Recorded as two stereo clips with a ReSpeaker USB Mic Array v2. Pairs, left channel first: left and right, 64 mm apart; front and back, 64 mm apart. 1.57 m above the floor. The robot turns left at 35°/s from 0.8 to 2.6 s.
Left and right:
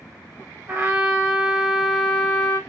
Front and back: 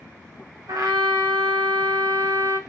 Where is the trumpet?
155° right, 1.0 m; by 2.6 s 145° left, 1.0 m.